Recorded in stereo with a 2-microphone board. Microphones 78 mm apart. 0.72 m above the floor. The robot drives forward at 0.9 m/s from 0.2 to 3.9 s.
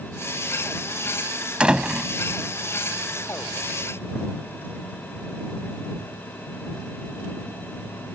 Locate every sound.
1.6 s a door slam: 10° right (ahead or behind)